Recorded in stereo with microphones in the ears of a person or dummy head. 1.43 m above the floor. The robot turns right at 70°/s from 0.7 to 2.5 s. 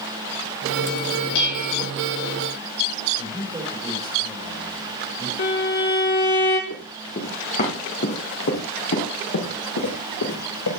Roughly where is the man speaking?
Centre.